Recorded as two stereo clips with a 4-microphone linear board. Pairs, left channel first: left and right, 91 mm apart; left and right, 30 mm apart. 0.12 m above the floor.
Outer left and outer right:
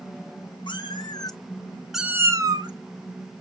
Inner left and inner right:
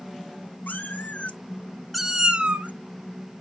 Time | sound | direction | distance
0.7 | a cat meowing | 65° left (ahead or behind) | 1.2 m